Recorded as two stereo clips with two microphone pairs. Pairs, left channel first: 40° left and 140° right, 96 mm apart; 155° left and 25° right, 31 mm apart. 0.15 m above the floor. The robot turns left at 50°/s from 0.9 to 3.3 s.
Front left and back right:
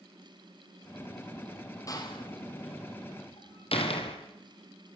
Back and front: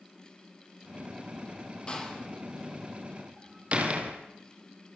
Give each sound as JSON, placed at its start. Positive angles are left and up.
{"t": 1.9, "sound": "a door slam", "azimuth_deg": 95, "distance_m": 4.0}